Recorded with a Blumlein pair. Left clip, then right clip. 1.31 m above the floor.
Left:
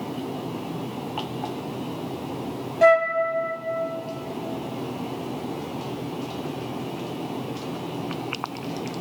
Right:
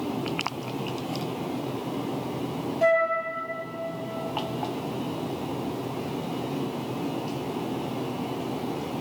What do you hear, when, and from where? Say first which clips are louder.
2.8 s a flute: left 5 dB; 70° left, 0.9 m